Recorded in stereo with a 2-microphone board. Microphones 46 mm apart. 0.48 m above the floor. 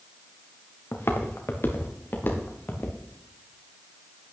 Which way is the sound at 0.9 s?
65° left (ahead or behind).